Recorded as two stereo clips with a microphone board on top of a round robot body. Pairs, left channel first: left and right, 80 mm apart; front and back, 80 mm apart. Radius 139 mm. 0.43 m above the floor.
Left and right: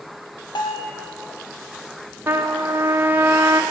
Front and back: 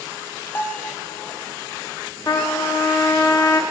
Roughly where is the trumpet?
Ahead right.